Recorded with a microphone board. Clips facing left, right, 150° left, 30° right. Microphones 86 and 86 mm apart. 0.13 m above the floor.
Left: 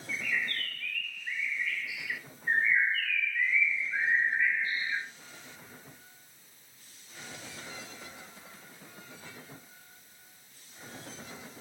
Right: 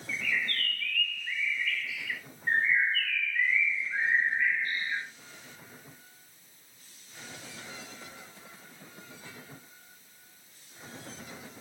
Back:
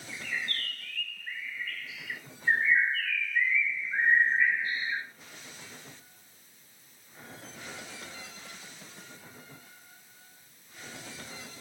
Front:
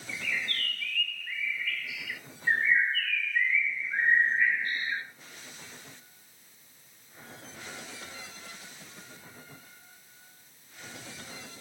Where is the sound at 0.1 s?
150° left, 1.1 m.